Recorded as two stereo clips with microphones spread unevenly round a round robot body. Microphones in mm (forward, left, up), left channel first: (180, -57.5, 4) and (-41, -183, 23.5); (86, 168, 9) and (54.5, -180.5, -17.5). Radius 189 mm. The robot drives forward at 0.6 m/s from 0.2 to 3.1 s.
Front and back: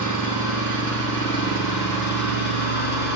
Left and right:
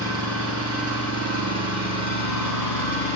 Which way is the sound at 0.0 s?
35° left.